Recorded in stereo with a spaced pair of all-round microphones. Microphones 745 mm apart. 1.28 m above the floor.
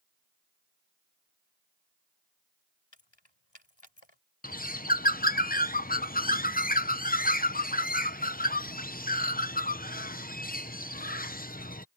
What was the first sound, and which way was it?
Keys jangling, 35° left (ahead or behind).